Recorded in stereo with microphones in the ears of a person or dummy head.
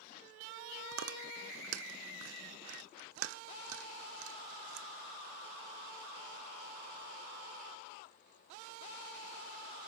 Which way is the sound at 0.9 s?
80° right.